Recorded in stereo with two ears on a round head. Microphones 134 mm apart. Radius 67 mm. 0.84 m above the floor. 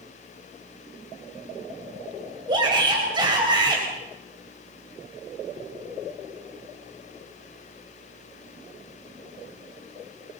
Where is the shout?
30° right (ahead or behind), 4 m.